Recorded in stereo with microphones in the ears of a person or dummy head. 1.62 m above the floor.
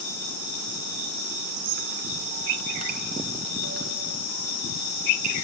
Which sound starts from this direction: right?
A squeak, at 1.6 s.